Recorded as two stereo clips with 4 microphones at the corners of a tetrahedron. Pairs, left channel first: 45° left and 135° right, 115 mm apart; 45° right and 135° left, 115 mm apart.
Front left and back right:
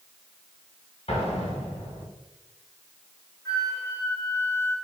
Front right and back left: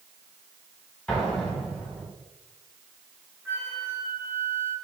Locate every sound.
1.1 s an explosion: 35° left, 1.4 m
3.5 s a flute: 80° left, 1.3 m